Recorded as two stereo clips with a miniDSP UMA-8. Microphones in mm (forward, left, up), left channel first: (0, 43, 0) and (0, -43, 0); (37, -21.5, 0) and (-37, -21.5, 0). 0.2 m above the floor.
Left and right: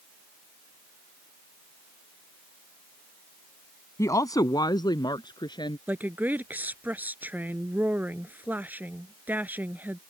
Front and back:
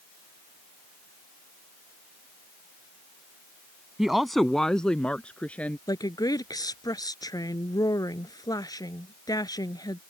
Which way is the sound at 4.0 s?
100° left.